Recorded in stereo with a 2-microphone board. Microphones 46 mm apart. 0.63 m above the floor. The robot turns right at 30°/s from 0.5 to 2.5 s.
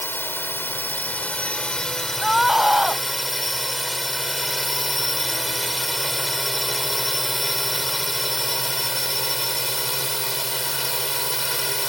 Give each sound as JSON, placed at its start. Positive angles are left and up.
{"t": 0.0, "sound": "a drone", "azimuth_deg": 120}
{"t": 2.2, "sound": "a scream", "side_deg": 0}